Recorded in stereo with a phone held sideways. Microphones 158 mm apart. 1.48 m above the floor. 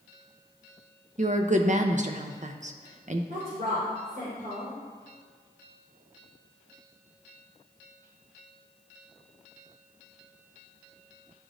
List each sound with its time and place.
1.2 s a woman speaking: 50° right (ahead or behind), 0.6 m
3.3 s a woman speaking: 85° right, 2.5 m